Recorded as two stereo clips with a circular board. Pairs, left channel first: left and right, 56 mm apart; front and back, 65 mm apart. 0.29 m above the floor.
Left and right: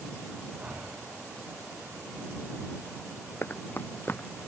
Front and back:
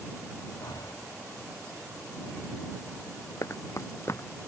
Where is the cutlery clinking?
I don't hear cutlery clinking.